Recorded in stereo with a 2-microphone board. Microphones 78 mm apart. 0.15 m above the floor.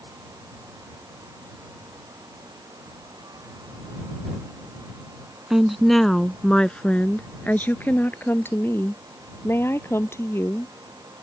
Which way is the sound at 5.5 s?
5° right (ahead or behind).